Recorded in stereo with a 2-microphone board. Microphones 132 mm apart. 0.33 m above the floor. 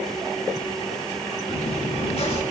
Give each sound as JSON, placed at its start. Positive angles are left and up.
{"t": 1.5, "sound": "chewing", "side_deg": 55, "distance_m": 4.5}